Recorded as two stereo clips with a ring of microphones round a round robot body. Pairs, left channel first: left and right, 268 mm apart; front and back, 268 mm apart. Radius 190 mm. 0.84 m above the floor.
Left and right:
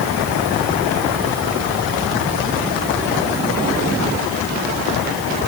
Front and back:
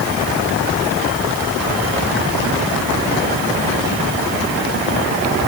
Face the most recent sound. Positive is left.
No sound to turn to.